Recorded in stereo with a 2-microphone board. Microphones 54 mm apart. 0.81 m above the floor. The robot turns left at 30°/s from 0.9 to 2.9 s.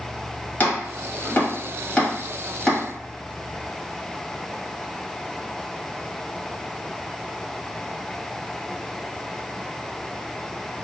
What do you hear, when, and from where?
0.6 s chopping: 35° left (ahead or behind), 1.3 m; by 2.8 s centre (ahead or behind), 1.3 m